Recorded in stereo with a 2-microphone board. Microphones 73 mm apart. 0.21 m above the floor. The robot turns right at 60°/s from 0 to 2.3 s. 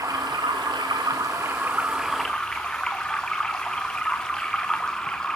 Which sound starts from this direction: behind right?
Running water, at 0.0 s.